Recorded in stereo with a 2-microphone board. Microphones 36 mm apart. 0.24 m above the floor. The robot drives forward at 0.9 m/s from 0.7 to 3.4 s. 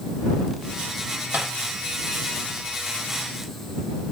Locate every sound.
1.3 s tapping: 75° right (ahead or behind), 7 m; by 1.5 s 80° right, 7 m